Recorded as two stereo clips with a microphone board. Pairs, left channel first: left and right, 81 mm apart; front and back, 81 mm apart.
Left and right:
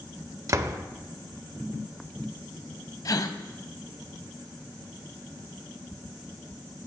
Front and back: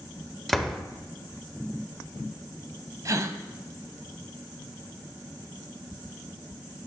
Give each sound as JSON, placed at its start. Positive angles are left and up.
{"t": 0.5, "sound": "a door slam", "azimuth_deg": -85, "distance_m": 0.7}
{"t": 3.0, "sound": "a gasp", "azimuth_deg": 130, "distance_m": 0.7}